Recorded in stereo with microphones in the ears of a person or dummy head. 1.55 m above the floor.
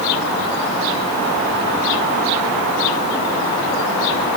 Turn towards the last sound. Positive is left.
No sound to turn to.